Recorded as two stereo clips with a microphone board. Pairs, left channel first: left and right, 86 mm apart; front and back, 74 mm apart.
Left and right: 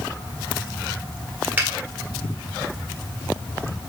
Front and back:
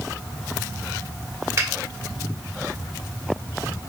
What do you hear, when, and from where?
1.6 s a finger snap: 150° right, 1.4 m